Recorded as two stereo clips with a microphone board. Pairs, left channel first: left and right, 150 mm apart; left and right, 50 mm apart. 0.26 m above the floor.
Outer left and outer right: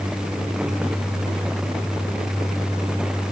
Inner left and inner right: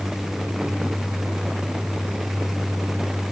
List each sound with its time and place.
Only background noise.